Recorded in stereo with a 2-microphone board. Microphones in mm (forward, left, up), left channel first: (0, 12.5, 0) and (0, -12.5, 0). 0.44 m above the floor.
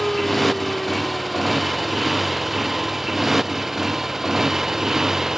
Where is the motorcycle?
Centre (ahead or behind); by 5.4 s 20° right (ahead or behind).